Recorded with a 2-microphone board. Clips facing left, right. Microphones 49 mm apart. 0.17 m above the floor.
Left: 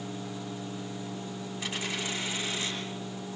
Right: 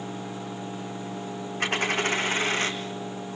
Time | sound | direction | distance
1.6 | a dropped coin | 55° right (ahead or behind) | 3.5 m